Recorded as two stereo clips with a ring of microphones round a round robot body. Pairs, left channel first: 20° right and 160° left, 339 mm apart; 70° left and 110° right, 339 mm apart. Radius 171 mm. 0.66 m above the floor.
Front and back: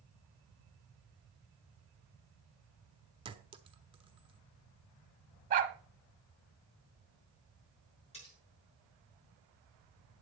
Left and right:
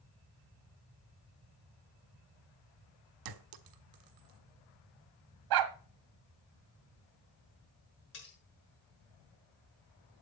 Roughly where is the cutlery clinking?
Ahead left.